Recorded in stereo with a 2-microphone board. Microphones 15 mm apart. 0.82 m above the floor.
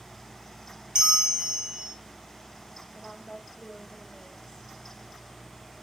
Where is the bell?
65° right (ahead or behind), 0.7 m.